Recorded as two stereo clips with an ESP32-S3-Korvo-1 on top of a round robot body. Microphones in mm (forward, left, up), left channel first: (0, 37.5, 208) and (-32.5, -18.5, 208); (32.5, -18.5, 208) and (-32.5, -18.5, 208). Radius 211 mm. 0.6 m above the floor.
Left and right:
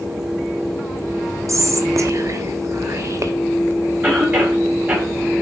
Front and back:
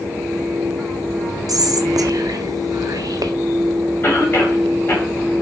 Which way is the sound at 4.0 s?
60° right.